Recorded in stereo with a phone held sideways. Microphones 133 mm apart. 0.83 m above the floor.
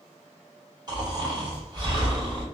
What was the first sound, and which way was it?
Snoring, 30° right (ahead or behind).